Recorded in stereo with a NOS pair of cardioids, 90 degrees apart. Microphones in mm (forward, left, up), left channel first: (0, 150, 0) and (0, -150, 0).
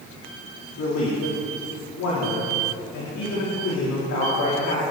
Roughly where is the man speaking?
Left.